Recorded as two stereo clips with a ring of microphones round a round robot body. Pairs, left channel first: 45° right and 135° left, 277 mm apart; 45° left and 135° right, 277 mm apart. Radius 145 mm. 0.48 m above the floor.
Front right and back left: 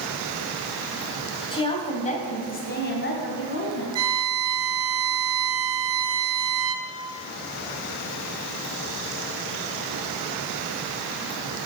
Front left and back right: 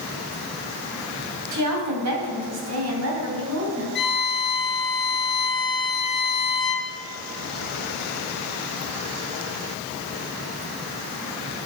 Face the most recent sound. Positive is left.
turn(degrees=100)